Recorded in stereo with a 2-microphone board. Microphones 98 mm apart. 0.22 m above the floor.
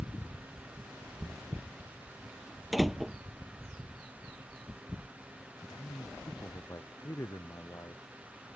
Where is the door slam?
Centre (ahead or behind).